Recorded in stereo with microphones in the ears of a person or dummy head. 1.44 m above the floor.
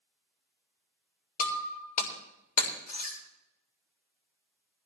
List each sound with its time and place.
1.4 s breaking glass: 40° left (ahead or behind), 3.5 m